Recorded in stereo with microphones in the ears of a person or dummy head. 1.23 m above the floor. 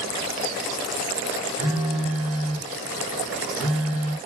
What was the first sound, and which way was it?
A phone buzzing, 10° right (ahead or behind).